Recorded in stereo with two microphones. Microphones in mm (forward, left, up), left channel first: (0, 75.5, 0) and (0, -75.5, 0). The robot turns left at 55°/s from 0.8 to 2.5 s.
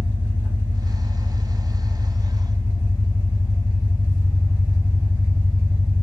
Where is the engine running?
130° right, 0.8 m; by 6.0 s 135° left, 0.8 m.